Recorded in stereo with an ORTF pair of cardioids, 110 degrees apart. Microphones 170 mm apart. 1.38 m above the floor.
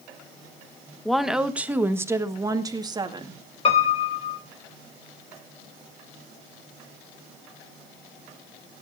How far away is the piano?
About 4 m.